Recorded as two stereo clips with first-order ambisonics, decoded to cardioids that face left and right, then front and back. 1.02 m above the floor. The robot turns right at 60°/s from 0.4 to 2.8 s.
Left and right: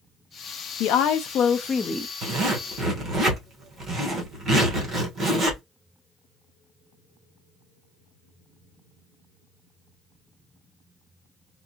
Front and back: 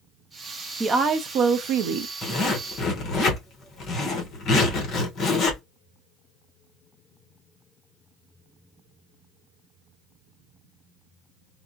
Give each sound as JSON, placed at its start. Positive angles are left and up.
{"t": 0.8, "sound": "a woman speaking", "azimuth_deg": 105, "distance_m": 0.6}
{"t": 2.2, "sound": "a zipper", "azimuth_deg": -75, "distance_m": 1.2}